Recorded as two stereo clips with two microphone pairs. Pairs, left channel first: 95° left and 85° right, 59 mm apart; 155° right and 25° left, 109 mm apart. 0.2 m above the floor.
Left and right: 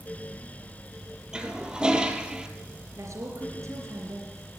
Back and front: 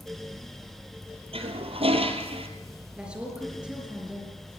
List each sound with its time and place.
1.3 s a toilet flushing: 5° right, 1.8 m
3.0 s a woman speaking: 60° right, 3.5 m